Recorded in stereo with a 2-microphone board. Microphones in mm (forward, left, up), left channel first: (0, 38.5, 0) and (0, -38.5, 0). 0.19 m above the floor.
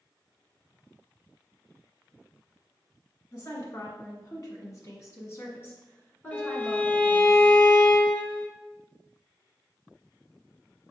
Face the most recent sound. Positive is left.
turn(degrees=20)  # may be behind; listen again after turning